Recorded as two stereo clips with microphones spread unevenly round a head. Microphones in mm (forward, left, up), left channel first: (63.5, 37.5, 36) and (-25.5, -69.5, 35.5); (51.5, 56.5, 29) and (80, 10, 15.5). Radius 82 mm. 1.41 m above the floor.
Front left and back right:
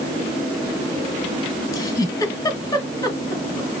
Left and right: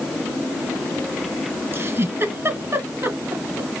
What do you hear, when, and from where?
1.7 s a giggle: 15° right, 3.5 m